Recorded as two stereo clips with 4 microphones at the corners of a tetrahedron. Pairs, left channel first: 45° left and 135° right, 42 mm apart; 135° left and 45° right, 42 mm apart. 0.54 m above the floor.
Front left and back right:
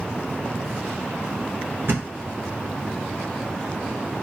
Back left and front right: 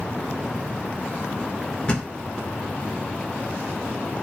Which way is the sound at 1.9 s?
160° right.